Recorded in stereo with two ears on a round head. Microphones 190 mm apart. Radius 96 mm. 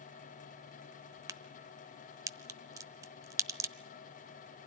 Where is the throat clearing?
No throat clearing in this recording.